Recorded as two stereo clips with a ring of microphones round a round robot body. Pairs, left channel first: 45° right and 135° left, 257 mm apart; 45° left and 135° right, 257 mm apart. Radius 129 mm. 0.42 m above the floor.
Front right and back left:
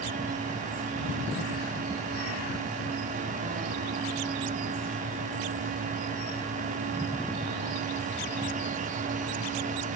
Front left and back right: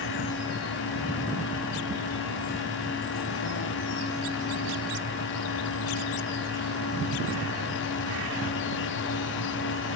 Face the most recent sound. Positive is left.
No sound to turn to.